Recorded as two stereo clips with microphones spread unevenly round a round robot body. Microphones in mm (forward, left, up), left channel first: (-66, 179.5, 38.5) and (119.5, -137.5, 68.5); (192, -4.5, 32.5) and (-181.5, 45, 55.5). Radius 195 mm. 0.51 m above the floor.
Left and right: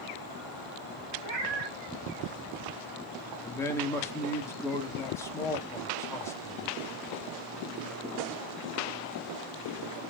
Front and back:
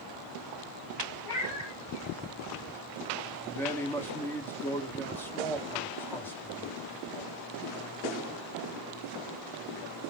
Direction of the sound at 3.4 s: 60° left.